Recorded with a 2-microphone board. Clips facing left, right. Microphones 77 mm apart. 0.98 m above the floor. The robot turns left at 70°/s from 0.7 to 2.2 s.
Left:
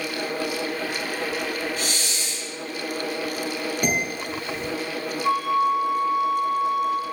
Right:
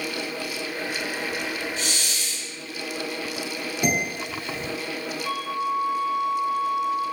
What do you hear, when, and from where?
1.8 s a hiss: 60° left, 0.6 m; by 2.5 s 30° left, 0.6 m
3.8 s dishes clattering: 15° left (ahead or behind), 1.7 m
5.2 s a flute: 45° left (ahead or behind), 1.9 m